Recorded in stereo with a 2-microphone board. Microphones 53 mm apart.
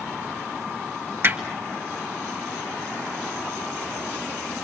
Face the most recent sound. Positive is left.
turn(degrees=-45)  # may be behind; listen again after turning